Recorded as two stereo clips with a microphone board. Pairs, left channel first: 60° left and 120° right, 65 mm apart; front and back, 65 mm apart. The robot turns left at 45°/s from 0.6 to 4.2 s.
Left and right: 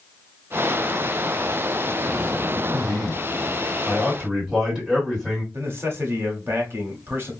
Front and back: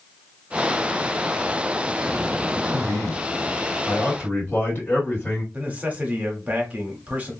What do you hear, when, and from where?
2.7 s a man speaking: 15° left, 2 m; by 5.4 s 50° right, 2 m
5.5 s a man speaking: 130° right, 0.9 m